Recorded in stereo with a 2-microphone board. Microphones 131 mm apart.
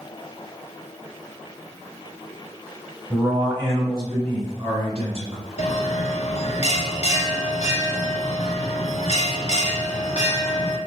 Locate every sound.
3.1 s a man speaking: 10° right (ahead or behind), 1.2 m; by 5.4 s 55° right (ahead or behind), 1.7 m
5.6 s a bell: 55° left (ahead or behind), 0.5 m